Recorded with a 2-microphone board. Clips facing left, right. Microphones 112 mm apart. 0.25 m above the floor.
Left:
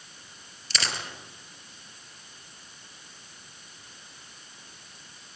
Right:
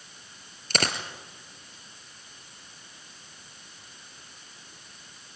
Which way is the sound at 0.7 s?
50° right (ahead or behind).